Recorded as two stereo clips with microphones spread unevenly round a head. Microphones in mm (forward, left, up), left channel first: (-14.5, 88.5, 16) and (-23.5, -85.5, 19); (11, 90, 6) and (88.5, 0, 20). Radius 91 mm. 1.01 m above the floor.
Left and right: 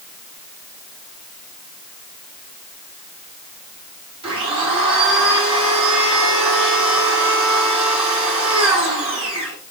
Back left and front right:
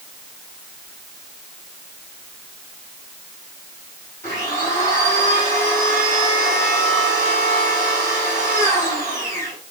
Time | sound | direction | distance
4.2 | a blender | 155° right | 9 m